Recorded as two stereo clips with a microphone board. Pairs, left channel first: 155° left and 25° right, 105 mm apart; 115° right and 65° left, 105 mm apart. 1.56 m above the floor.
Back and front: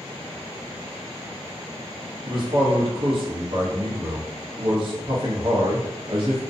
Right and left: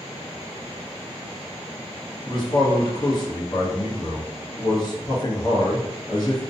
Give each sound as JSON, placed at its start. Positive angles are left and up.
{"t": 2.3, "sound": "a man speaking", "azimuth_deg": -65, "distance_m": 0.8}